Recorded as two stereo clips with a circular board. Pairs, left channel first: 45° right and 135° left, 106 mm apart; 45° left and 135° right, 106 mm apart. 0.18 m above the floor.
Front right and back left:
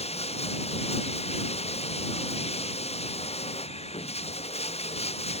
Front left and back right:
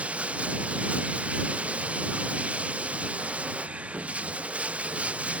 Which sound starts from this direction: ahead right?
Running water, at 0.0 s.